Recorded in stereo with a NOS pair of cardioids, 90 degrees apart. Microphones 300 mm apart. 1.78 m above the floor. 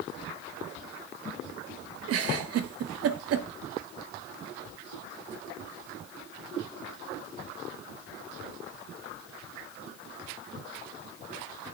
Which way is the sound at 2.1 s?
60° right.